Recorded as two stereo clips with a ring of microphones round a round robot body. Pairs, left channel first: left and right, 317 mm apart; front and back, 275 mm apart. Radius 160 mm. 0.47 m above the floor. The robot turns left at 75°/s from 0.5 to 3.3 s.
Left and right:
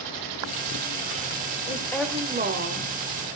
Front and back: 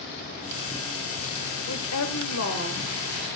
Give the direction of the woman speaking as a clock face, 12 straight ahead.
11 o'clock.